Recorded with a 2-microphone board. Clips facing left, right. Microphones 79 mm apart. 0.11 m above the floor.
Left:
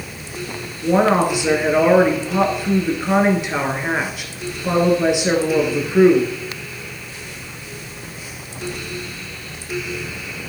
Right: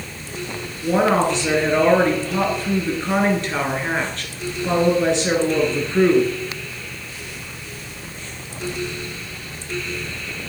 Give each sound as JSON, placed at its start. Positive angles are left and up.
{"t": 0.8, "sound": "a woman speaking", "side_deg": 10, "distance_m": 1.8}